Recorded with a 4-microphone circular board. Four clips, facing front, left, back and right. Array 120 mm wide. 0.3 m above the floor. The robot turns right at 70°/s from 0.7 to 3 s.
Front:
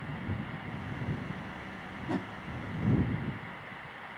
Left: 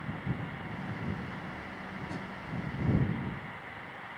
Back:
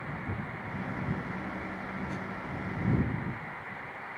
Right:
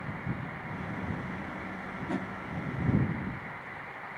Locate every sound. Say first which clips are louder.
2.1 s a whoosh: right 9 dB, front 3 dB; 40° right; by 2.3 s 25° right